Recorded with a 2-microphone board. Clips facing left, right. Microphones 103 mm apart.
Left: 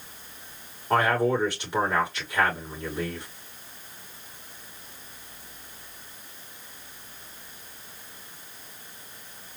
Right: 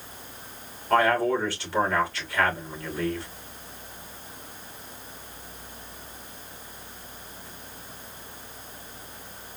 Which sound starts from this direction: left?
A man speaking, at 0.9 s.